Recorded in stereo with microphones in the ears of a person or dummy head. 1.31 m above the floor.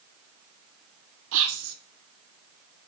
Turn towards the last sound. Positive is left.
turn(degrees=-55)  # may be behind; listen again after turning